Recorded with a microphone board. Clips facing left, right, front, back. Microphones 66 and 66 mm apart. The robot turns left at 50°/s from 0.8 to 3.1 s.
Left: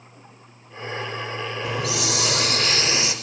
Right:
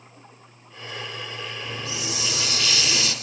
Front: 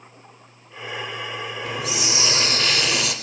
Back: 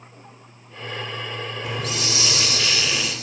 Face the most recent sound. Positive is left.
turn(degrees=20)